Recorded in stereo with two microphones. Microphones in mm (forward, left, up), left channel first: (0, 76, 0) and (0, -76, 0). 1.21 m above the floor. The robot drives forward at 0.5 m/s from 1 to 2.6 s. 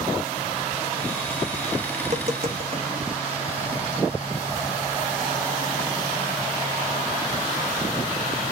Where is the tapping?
55° right (ahead or behind), 0.9 m; by 2.9 s 40° right (ahead or behind), 1.1 m.